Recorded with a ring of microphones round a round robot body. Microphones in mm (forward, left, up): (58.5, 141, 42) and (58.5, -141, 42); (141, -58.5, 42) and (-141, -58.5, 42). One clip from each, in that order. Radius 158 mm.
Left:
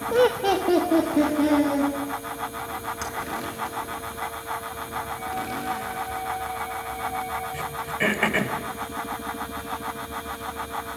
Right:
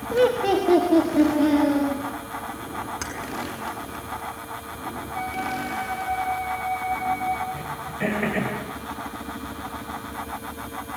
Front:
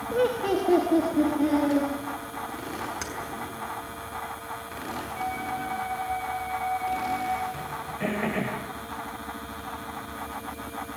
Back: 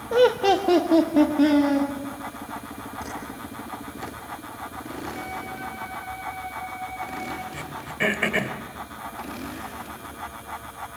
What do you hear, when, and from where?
0.1 s laughter: 140° left, 1.0 m; by 1.9 s straight behind, 3 m
3.0 s keys jangling: 5° right, 6 m
5.1 s a flute: 85° right, 5 m
7.5 s throat clearing: 140° left, 1.9 m